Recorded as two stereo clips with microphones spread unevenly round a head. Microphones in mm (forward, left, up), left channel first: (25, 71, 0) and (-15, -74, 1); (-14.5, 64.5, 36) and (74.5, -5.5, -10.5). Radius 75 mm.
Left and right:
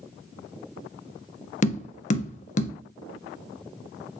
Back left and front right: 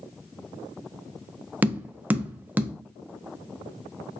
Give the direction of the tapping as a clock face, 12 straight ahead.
10 o'clock.